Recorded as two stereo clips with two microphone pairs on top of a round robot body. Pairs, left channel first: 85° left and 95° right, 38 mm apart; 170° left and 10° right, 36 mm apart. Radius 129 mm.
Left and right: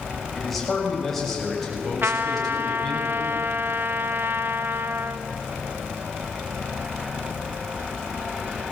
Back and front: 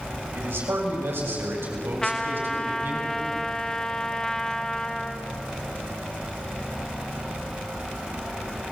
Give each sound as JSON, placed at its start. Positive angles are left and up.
{"t": 0.3, "sound": "a man speaking", "azimuth_deg": 0, "distance_m": 6.5}
{"t": 2.0, "sound": "a trumpet", "azimuth_deg": -110, "distance_m": 1.2}